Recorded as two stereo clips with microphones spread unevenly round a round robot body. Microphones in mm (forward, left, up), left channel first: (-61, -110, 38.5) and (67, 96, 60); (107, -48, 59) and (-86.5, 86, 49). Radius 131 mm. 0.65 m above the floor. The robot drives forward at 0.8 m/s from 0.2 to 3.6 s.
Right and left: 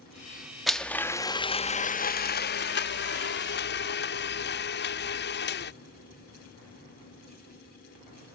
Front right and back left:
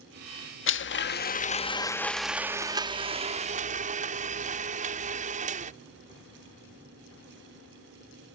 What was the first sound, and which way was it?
A blender, 35° right.